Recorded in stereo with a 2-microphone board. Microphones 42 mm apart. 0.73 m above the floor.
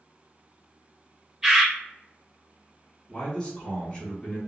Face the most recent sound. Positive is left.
turn(degrees=20)  # may be behind; listen again after turning